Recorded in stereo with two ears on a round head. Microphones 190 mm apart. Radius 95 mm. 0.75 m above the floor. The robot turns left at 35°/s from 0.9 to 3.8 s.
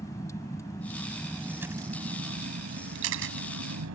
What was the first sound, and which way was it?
A vehicle, 15° left.